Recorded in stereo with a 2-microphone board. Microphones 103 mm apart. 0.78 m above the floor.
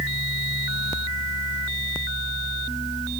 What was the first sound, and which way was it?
Only background noise.